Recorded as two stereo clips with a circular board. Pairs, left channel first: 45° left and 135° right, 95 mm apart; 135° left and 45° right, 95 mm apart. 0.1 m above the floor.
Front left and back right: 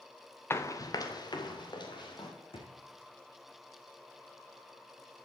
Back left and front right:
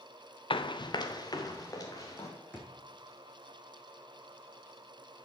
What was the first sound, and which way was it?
Running footsteps, 110° left.